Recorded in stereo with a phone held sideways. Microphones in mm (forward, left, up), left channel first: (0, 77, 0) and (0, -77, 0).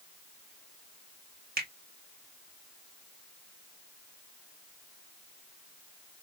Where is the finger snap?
70° right (ahead or behind), 1.4 m.